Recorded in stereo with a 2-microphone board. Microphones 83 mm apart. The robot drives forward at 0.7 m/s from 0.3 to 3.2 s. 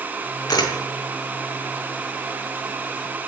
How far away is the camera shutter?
About 4 m.